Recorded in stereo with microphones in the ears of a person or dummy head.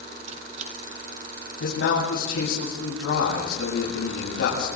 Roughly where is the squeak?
Right.